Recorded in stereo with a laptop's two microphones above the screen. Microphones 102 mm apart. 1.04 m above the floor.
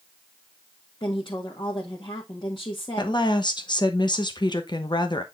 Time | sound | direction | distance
1.0 | a woman speaking | 55° left (ahead or behind) | 1.6 m
3.0 | a woman speaking | 50° left (ahead or behind) | 1.0 m